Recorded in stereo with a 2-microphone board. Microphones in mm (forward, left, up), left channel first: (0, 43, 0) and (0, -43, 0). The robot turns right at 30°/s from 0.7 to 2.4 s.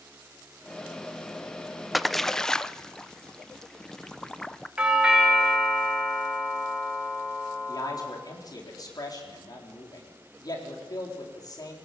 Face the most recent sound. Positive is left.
turn(degrees=45)  # may be behind; listen again after turning